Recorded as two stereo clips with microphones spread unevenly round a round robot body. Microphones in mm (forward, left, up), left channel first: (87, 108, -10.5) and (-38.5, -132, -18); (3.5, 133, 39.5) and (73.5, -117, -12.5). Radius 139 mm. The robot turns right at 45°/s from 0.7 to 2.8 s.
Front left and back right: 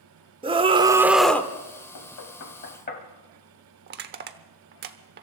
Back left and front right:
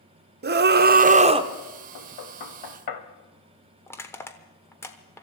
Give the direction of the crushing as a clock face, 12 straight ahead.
6 o'clock.